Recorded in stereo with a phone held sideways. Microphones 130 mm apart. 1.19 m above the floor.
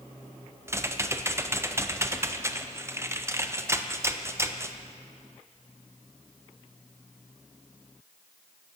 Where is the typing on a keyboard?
20° right (ahead or behind), 0.7 m.